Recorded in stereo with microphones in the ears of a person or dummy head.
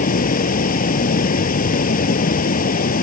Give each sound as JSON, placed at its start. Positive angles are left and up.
{"t": 0.0, "sound": "running water", "side_deg": 50}